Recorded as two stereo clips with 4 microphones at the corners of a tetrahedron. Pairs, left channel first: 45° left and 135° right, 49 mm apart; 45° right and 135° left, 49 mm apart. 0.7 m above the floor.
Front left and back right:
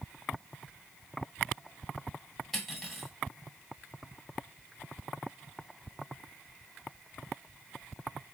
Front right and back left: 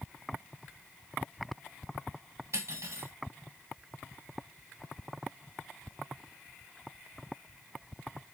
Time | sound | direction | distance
2.5 | cutlery clinking | 135° left | 1.2 m